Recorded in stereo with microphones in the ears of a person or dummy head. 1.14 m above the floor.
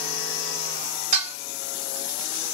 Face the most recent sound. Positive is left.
turn(degrees=-40)  # may be behind; listen again after turning